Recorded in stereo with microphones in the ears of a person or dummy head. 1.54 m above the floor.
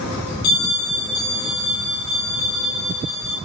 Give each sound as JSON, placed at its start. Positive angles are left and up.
{"t": 0.4, "sound": "a bell", "side_deg": 90, "distance_m": 1.6}